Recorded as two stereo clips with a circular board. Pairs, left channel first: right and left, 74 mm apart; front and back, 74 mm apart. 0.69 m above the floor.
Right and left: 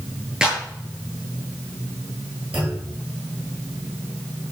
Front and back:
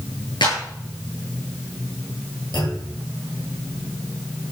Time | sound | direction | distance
0.4 | a clap | 10° left | 8 m
2.5 | a clunk | 15° left | 8 m